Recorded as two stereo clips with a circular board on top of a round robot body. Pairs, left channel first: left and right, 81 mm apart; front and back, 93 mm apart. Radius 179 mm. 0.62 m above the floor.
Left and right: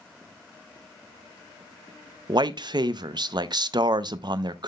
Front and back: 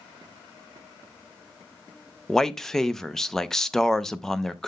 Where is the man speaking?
85° right, 0.7 m.